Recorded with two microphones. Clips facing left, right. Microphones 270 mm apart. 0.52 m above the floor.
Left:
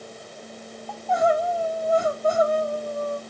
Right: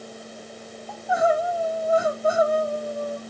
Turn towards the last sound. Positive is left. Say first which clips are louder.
# even
turn(degrees=-10)  # may be behind; listen again after turning